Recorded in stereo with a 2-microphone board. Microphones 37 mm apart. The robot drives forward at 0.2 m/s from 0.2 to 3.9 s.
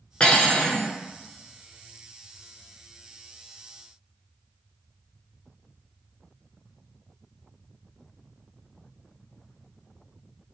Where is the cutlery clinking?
25° left (ahead or behind), 0.7 m.